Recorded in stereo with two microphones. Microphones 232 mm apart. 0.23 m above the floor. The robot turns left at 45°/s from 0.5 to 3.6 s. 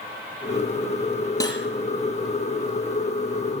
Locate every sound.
1.4 s cutlery clinking: 15° left (ahead or behind), 3 m; by 1.6 s 25° left (ahead or behind), 3 m